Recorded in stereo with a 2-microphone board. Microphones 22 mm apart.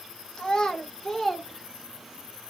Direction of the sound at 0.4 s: 35° left (ahead or behind).